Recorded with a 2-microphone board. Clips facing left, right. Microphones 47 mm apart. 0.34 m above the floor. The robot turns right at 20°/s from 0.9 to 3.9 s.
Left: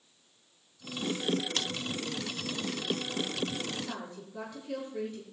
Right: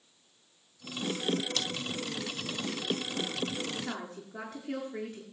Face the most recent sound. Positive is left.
turn(degrees=-70)  # may be behind; listen again after turning